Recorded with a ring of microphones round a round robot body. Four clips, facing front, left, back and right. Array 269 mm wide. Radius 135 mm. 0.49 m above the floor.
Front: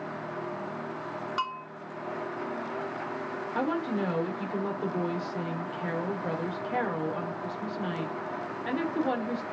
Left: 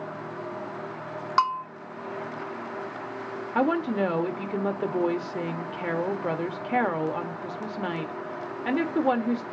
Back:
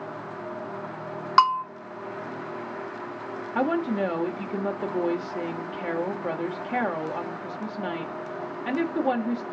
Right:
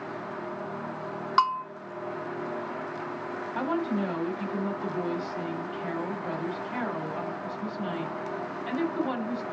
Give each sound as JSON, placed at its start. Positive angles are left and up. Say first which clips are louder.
{"t": 1.4, "sound": "a bell", "louder": "even, back 16 dB", "azimuth_deg": 175, "distance_m": 0.8}
{"t": 3.5, "sound": "a woman speaking", "louder": "left 5 dB, back 5 dB", "azimuth_deg": 110, "distance_m": 1.5}